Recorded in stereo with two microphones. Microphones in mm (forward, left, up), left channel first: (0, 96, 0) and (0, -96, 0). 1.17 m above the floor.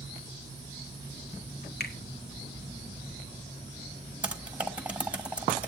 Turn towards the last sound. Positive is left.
turn(degrees=-5)  # may be behind; listen again after turning